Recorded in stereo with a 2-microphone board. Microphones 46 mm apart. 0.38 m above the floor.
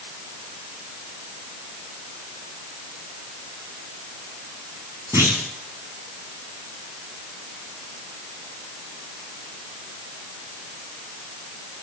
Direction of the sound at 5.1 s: 85° right.